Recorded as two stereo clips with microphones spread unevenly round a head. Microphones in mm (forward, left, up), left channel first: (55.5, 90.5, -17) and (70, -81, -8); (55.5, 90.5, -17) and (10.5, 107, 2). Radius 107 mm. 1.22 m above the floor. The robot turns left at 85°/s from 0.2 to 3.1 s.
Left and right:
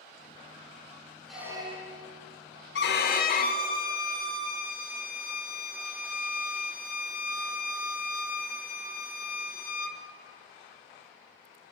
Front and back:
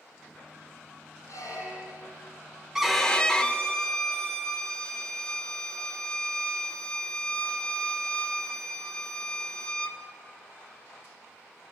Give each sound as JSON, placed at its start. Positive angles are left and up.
{"t": 1.3, "sound": "a squeak", "azimuth_deg": 5, "distance_m": 3.0}
{"t": 2.8, "sound": "a violin", "azimuth_deg": 90, "distance_m": 1.7}